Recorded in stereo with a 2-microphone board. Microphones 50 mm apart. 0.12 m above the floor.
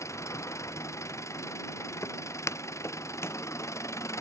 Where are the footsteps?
85° left; by 3.4 s 60° left (ahead or behind).